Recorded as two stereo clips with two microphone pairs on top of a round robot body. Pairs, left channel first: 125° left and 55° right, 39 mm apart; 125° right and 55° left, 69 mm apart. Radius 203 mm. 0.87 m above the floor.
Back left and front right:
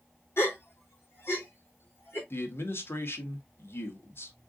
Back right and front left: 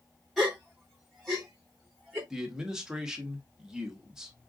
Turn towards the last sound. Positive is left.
turn(degrees=135)